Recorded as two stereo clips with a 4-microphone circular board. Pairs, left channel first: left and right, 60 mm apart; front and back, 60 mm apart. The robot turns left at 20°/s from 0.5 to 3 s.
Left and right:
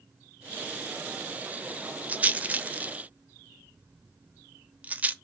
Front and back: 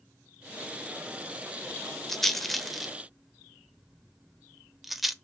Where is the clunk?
I don't hear a clunk.